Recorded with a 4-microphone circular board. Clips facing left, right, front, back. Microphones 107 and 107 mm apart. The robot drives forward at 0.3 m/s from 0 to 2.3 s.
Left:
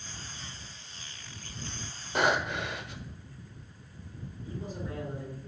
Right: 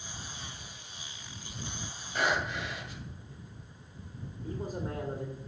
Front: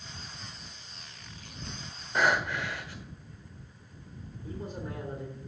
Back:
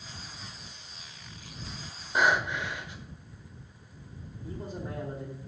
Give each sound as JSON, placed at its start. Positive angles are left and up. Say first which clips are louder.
{"t": 2.1, "sound": "breathing", "louder": "left 3 dB, back 1 dB", "azimuth_deg": 105, "distance_m": 1.2}
{"t": 4.4, "sound": "a man speaking", "louder": "right 3 dB, even", "azimuth_deg": -130, "distance_m": 2.0}